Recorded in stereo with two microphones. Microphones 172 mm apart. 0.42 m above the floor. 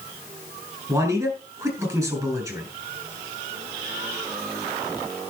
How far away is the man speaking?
About 6 m.